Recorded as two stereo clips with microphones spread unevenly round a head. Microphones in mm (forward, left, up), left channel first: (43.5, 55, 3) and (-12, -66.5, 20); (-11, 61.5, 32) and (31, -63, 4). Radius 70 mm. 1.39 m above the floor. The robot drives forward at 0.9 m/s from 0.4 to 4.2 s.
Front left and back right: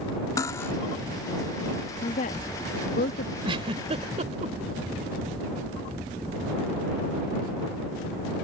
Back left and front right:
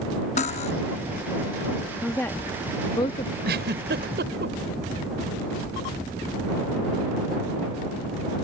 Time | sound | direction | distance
0.4 | cutlery clinking | 135° left | ?
2.0 | a woman speaking | 35° left | ?
3.4 | a giggle | 65° right | ?